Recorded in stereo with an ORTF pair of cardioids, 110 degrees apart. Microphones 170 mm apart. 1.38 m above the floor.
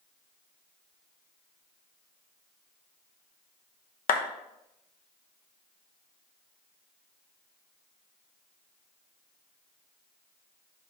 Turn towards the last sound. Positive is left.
turn(degrees=60)